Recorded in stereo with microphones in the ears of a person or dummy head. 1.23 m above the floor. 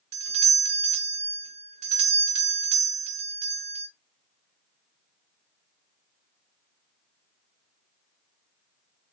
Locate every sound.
0.1 s a doorbell: 35° right (ahead or behind), 0.7 m